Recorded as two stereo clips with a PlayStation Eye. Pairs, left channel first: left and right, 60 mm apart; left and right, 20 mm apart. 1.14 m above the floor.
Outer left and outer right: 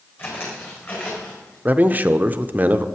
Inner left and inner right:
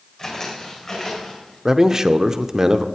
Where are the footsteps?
40° left (ahead or behind), 4 m.